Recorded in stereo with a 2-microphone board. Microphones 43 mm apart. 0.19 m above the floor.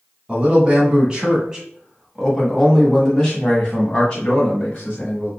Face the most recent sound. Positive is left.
turn(degrees=25)  # may be behind; listen again after turning